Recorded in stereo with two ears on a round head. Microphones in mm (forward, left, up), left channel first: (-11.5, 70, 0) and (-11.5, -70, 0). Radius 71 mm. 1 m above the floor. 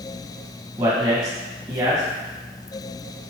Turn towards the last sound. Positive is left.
turn(degrees=-25)  # may be behind; listen again after turning